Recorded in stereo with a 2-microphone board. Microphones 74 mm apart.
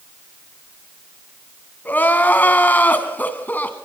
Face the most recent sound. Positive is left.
turn(degrees=25)  # may be behind; listen again after turning